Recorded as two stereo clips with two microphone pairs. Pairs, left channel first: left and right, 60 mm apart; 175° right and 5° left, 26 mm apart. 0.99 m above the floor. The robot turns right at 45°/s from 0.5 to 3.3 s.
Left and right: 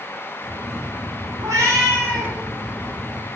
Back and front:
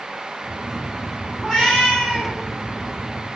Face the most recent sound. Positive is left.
turn(degrees=-10)